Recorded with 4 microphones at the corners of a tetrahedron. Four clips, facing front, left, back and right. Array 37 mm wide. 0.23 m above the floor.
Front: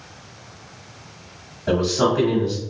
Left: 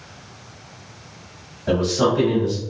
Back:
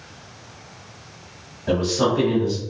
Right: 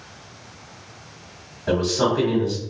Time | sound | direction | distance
1.7 | a man speaking | 10° left | 1.0 m